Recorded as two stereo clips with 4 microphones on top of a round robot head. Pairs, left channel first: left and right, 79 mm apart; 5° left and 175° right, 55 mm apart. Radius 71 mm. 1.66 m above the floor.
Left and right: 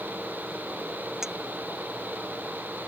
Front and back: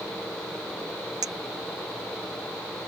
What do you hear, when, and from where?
1.2 s a clink: 175° right